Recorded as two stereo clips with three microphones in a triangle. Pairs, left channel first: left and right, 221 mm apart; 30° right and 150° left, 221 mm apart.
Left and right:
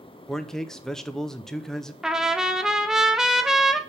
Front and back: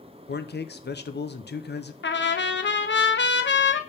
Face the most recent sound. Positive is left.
turn(degrees=0)